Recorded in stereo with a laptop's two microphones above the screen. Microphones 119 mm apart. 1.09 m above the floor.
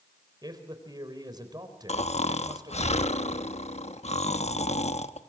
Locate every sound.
0.4 s a man speaking: 35° right (ahead or behind), 3.5 m
1.9 s snoring: 70° left (ahead or behind), 1.0 m